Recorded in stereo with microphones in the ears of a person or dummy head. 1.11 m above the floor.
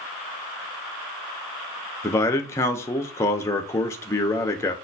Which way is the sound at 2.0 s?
15° left (ahead or behind).